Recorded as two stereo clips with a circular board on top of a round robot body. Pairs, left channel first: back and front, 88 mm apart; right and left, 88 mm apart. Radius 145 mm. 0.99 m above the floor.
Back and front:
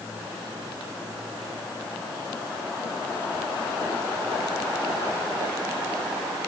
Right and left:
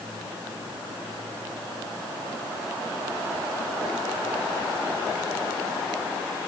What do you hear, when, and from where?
Only background noise.